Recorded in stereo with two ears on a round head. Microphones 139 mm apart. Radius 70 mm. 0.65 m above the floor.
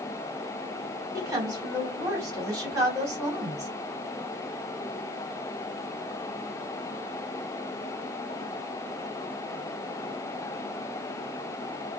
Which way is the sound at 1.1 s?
20° right (ahead or behind).